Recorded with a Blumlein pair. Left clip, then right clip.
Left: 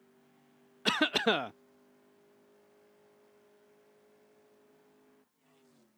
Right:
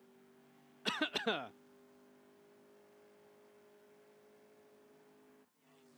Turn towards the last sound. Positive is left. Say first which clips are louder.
# left 8 dB
turn(degrees=25)